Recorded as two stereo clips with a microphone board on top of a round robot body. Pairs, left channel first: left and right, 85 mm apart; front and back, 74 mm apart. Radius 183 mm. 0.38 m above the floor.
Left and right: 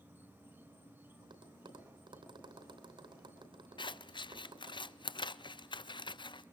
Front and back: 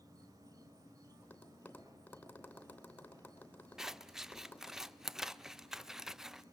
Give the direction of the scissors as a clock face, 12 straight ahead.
9 o'clock.